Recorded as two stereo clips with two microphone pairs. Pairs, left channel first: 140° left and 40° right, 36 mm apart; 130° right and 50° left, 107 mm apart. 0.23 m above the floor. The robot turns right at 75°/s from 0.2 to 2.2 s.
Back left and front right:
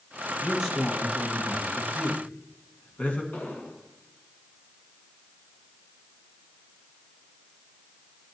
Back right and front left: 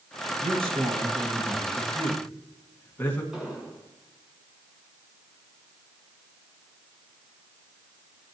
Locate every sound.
0.4 s a man speaking: 25° left, 2.5 m; by 3.2 s 160° left, 2.5 m
3.3 s an explosion: 130° left, 3 m